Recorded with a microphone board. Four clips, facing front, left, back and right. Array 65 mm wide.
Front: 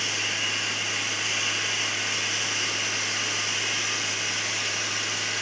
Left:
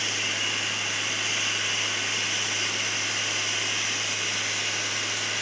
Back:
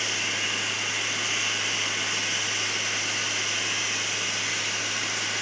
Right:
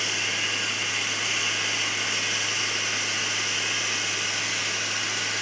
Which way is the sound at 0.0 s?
90° right.